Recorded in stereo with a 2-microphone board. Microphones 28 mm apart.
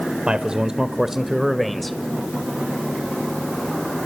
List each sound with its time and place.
0.3 s a man speaking: 40° right (ahead or behind), 1.7 m; by 2.0 s 5° left (ahead or behind), 2 m